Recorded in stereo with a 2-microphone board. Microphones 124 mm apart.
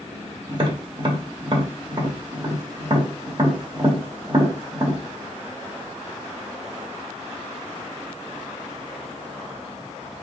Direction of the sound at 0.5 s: 40° right (ahead or behind).